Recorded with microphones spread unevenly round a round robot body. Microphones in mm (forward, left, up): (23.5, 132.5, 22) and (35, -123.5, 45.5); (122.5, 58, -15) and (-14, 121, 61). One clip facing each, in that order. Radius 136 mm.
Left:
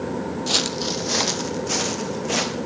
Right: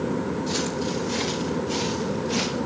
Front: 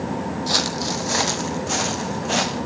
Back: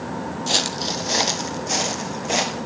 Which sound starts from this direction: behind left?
Footsteps, at 0.5 s.